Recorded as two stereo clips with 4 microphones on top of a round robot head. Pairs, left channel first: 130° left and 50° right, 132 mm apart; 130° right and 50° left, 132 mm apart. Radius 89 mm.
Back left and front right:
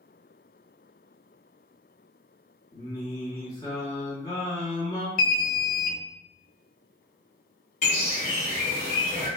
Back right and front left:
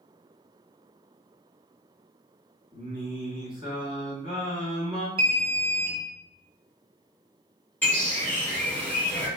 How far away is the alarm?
About 0.7 m.